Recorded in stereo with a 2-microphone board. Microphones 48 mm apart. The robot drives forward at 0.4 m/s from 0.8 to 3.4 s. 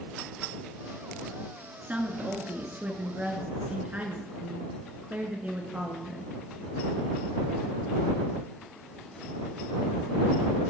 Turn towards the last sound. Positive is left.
turn(degrees=-25)  # may be behind; listen again after turning